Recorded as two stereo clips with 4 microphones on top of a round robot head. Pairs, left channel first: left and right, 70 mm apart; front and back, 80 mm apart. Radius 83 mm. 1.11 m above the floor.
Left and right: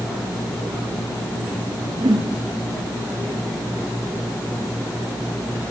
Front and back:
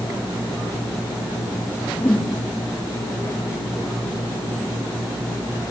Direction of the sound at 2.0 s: 70° right.